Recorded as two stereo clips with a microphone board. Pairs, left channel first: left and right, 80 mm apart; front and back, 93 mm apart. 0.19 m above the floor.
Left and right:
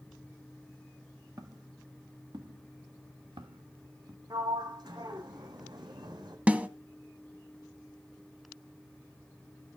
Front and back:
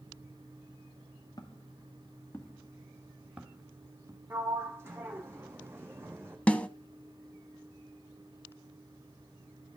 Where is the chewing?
I don't hear chewing.